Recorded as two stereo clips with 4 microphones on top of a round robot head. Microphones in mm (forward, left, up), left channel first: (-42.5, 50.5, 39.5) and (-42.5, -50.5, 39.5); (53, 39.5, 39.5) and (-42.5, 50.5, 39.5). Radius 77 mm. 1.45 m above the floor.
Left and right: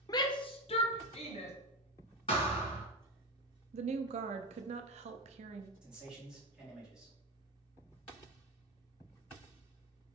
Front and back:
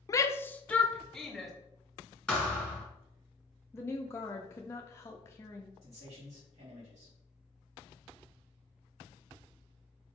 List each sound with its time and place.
0.1 s a shout: 40° left, 0.5 m; by 1.5 s 85° left, 1.1 m
2.3 s a thud: 75° left, 1.5 m
3.7 s a woman speaking: 75° right, 0.5 m
5.8 s a man speaking: 170° right, 2.5 m